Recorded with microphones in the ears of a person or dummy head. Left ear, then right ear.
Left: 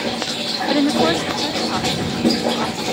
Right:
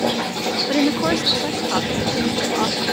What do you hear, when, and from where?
0.7 s a woman speaking: 5° left (ahead or behind); by 2.8 s 15° right (ahead or behind)